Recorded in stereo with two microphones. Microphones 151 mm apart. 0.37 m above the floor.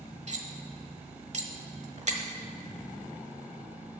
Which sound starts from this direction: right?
Cutlery clinking, at 0.3 s.